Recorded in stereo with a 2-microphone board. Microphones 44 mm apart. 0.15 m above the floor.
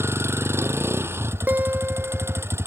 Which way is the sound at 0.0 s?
70° right (ahead or behind).